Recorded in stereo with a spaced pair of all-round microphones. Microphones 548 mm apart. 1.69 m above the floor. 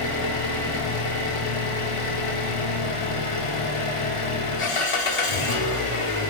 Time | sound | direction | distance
0.0 | an engine running | 65° left (ahead or behind) | 1.0 m